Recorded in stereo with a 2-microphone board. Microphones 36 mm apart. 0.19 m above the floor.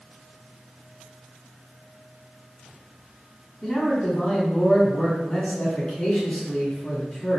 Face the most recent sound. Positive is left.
turn(degrees=30)  # may be behind; listen again after turning